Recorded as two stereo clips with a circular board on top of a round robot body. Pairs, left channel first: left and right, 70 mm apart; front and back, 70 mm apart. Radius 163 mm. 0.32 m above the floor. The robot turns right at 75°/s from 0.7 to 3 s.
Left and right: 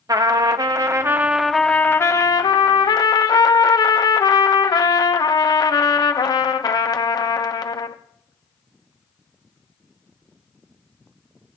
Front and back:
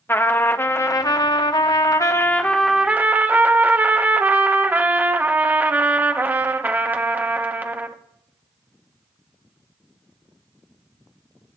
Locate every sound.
0.1 s a trumpet: 60° right, 1.2 m; by 8.0 s 115° left, 1.2 m